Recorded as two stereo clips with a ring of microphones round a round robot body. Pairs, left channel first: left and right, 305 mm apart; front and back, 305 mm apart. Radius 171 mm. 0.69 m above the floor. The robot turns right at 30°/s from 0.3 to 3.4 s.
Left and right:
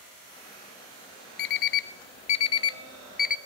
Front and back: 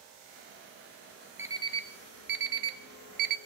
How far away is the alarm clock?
About 0.7 m.